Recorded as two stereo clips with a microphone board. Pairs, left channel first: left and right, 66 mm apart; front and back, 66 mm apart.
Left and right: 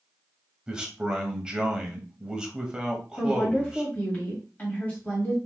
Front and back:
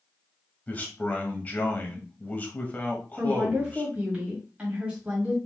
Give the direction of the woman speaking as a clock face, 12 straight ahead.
8 o'clock.